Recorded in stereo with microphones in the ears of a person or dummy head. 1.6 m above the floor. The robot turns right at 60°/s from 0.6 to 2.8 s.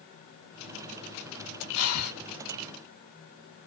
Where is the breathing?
80° left, 0.8 m; by 2.1 s 75° left (ahead or behind), 0.8 m.